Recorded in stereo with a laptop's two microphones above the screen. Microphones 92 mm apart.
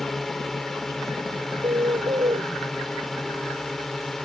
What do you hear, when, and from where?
0.0 s a drone: 5° left (ahead or behind)
1.6 s a bird: 75° right (ahead or behind)